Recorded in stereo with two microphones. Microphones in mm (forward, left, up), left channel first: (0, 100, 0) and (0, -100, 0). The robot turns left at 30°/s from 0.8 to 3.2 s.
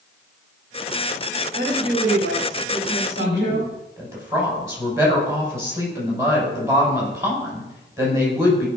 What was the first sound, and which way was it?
A woman speaking, 60° right.